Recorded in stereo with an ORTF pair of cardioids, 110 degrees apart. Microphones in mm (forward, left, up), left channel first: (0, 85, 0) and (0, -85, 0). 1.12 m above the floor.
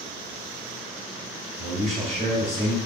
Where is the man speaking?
35° right, 1.9 m.